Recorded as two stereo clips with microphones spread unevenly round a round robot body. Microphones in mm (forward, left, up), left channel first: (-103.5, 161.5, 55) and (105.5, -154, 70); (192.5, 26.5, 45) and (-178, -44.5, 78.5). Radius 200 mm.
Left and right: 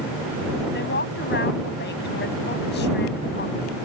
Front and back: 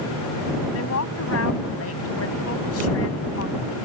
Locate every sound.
0.7 s a woman speaking: 60° left